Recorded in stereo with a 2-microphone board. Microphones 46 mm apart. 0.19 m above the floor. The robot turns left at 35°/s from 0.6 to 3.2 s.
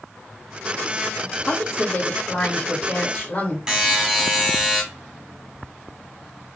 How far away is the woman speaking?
About 2 m.